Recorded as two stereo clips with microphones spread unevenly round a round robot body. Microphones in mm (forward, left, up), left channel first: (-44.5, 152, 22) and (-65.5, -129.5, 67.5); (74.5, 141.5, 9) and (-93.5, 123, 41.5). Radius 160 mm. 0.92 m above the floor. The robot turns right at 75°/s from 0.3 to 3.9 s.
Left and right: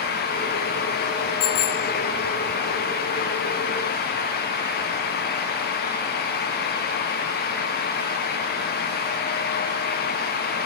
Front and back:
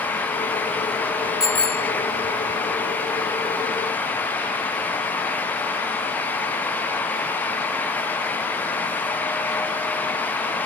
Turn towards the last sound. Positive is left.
turn(degrees=-100)